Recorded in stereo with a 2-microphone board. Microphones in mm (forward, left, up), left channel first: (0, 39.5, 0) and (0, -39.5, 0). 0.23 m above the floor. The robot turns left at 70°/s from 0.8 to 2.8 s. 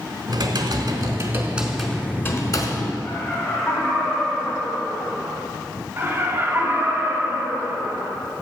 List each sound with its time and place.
0.3 s typing on a keyboard: 110° right, 0.9 m; by 2.9 s 110° left, 0.9 m
3.0 s laughter: 25° left (ahead or behind), 1.6 m
6.0 s laughter: 30° right (ahead or behind), 1.9 m